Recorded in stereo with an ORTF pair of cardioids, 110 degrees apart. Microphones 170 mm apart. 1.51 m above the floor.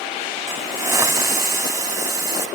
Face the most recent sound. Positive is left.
turn(degrees=-20)